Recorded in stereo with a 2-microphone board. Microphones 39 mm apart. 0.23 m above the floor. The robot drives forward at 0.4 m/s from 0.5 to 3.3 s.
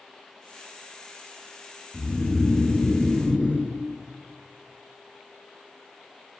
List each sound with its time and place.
1.9 s snoring: 40° left (ahead or behind), 3 m; by 3.7 s 45° left (ahead or behind), 2.5 m